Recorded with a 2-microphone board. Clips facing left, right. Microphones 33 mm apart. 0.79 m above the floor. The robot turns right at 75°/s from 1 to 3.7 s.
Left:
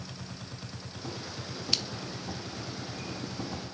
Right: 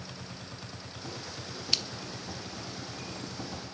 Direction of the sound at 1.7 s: 5° right (ahead or behind).